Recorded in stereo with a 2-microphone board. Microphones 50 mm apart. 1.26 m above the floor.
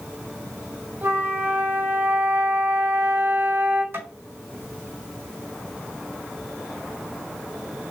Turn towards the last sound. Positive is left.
turn(degrees=-55)  # may be behind; listen again after turning